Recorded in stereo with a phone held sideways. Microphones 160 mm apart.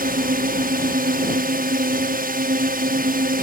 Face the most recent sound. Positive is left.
turn(degrees=-60)  # may be behind; listen again after turning